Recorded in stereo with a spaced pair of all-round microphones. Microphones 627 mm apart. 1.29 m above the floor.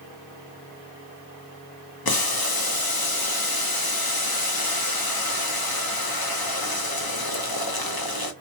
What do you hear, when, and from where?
2.0 s boiling: 40° left (ahead or behind), 0.6 m